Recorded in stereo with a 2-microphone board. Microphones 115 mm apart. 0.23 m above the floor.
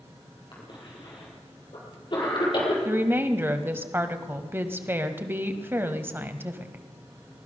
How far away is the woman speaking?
About 0.9 m.